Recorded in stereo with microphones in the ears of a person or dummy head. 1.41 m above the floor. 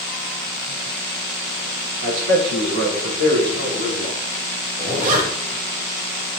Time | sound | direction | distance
2.0 | a man speaking | 85° right | 3.5 m
4.8 | a zipper | 50° right (ahead or behind) | 2.5 m